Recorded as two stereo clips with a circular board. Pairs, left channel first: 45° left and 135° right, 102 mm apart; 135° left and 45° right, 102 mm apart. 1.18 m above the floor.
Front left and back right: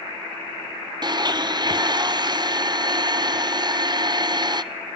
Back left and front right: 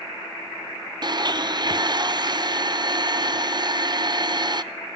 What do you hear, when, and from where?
1.0 s a blender: 90° right, 0.6 m